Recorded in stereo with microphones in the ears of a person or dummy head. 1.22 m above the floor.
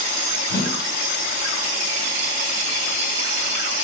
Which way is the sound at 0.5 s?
25° left (ahead or behind).